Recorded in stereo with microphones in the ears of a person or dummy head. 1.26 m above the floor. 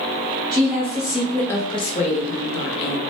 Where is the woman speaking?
20° right (ahead or behind), 0.8 m; by 3.0 s 55° left (ahead or behind), 0.9 m.